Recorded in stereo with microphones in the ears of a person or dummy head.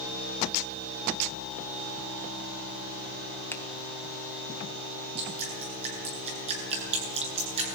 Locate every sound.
3.5 s a finger snap: 10° left (ahead or behind), 0.9 m
5.2 s dripping: 35° right (ahead or behind), 8.5 m